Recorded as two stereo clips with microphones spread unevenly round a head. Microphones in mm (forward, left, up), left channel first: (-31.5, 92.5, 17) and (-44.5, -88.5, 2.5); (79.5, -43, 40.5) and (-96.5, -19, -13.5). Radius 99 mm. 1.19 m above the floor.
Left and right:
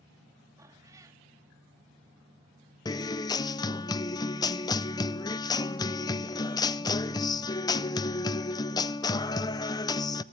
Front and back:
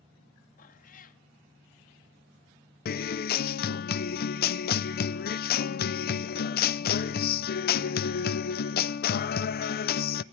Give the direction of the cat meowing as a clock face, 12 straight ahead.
1 o'clock.